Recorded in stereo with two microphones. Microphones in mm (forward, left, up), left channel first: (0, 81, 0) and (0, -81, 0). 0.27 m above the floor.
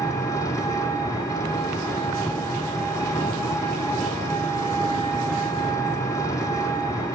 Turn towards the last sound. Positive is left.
turn(degrees=20)  # may be behind; listen again after turning